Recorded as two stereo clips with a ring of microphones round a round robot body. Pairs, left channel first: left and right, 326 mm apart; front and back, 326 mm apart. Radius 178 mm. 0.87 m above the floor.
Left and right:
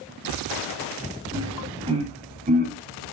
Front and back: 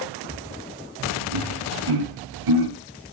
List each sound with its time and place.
1.3 s laughter: 170° right, 4.5 m; by 2.8 s 155° right, 2.5 m